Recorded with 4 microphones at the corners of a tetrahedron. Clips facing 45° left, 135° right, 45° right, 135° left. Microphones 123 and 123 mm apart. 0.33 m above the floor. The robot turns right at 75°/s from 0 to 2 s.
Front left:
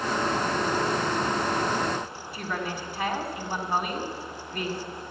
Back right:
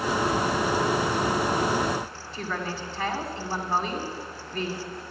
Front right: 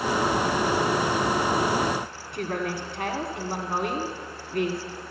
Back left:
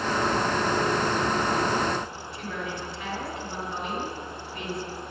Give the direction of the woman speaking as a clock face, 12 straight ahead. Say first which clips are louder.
Even, front right 6 dB; 1 o'clock.